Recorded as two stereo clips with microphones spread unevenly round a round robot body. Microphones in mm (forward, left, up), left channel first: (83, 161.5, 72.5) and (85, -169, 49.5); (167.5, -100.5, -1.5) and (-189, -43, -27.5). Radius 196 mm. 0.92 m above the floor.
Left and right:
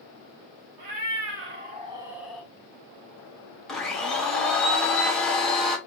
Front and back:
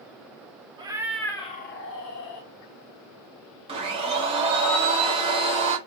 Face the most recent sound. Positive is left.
turn(degrees=-175)